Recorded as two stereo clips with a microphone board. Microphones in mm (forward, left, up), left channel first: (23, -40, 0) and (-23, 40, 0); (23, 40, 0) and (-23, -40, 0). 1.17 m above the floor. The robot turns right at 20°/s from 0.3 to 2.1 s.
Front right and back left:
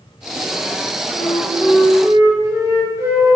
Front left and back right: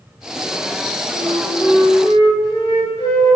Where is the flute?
45° left, 5.5 m; by 3.4 s 65° left, 5.5 m.